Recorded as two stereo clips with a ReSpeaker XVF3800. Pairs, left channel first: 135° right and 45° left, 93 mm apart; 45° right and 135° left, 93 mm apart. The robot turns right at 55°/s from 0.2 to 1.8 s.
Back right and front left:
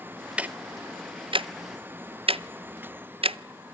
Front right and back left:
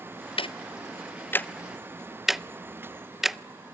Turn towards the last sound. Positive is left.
turn(degrees=45)